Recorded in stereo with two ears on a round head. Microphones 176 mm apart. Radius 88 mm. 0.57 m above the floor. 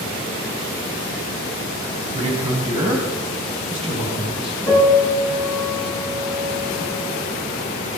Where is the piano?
5° left (ahead or behind), 6 m.